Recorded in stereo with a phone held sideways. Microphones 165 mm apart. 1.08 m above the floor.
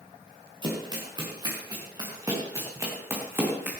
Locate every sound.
0.6 s running footsteps: 25° right (ahead or behind), 6.5 m; by 3.7 s 10° right (ahead or behind), 5 m